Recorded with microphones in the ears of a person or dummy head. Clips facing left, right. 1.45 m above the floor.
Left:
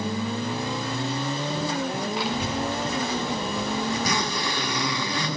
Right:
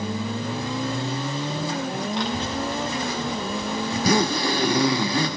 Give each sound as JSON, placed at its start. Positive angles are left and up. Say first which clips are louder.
{"t": 2.1, "sound": "a child speaking", "louder": "right 1 dB", "side_deg": 10, "distance_m": 1.7}
{"t": 3.9, "sound": "a zipper", "louder": "right 6 dB", "side_deg": -30, "distance_m": 1.4}